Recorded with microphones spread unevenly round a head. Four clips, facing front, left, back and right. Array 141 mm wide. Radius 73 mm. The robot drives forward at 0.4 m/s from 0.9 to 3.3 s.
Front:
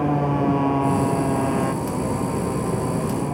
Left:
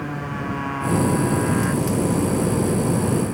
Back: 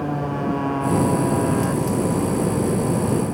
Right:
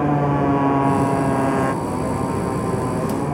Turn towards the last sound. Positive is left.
turn(degrees=-110)